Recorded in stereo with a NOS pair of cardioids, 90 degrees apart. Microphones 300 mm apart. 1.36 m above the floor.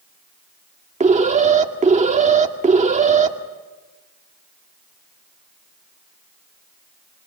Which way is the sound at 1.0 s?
25° right.